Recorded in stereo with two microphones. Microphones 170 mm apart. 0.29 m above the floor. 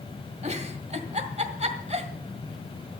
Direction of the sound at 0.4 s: 40° right (ahead or behind).